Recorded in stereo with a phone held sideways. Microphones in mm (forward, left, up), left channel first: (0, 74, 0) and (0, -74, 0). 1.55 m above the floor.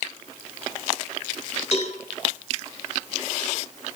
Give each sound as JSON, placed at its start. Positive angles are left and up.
{"t": 1.7, "sound": "a cowbell", "side_deg": 50, "distance_m": 2.5}